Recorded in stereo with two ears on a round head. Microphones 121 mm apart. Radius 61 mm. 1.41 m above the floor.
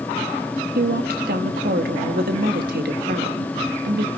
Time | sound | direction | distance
0.8 | a woman speaking | 85° right | 2 m